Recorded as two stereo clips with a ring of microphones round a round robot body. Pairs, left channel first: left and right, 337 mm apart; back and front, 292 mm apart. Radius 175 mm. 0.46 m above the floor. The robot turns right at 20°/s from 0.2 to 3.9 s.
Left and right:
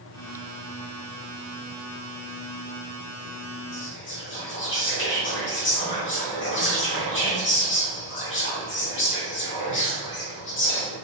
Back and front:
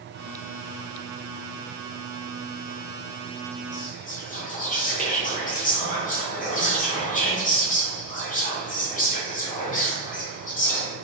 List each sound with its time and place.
3.7 s whispering: 125° left, 1.5 m; by 10.9 s 130° left, 1.5 m